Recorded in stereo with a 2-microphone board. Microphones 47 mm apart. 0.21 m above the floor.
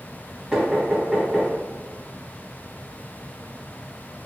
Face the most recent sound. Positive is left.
turn(degrees=-15)  # may be behind; listen again after turning